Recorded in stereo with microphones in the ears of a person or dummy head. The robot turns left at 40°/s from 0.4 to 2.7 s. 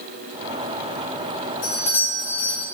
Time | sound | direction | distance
1.6 | a doorbell | 120° left | 2.5 m